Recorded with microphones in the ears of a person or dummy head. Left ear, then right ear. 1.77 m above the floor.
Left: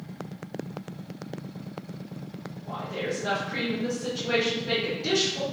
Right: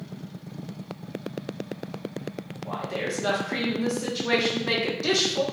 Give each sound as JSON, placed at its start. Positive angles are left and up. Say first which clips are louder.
{"t": 2.6, "sound": "a woman speaking", "louder": "right 2 dB", "side_deg": -60, "distance_m": 0.8}